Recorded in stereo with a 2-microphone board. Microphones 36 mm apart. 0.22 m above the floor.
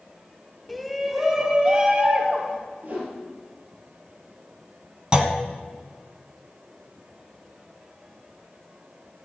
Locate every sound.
0.7 s a shout: 5° left (ahead or behind), 1.0 m; by 2.6 s 40° right (ahead or behind), 1.6 m
2.8 s a whoosh: 45° right (ahead or behind), 4.5 m
5.1 s a clunk: 30° right (ahead or behind), 1.3 m